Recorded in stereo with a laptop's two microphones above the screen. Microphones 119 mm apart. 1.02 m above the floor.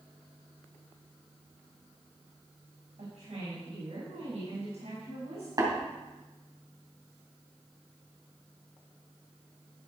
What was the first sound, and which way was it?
A woman speaking, 85° right.